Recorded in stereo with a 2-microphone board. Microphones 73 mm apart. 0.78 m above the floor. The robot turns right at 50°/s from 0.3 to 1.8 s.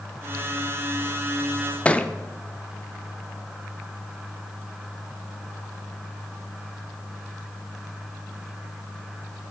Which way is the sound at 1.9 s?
15° left (ahead or behind).